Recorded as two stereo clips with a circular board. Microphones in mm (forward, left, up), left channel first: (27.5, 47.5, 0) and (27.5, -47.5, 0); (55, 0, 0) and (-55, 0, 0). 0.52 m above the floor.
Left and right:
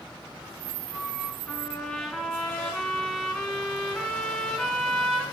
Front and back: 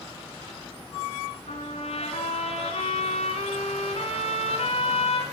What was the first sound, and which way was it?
A trumpet, 5° left.